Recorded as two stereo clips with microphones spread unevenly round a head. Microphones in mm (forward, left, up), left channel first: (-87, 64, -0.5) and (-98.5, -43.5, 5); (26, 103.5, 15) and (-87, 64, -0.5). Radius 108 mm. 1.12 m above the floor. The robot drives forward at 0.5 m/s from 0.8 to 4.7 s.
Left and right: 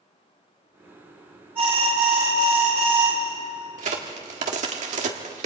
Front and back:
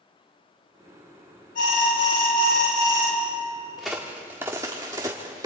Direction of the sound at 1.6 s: 20° right.